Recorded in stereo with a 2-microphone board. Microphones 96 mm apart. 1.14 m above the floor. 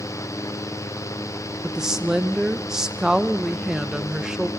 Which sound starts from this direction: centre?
A woman speaking, at 1.6 s.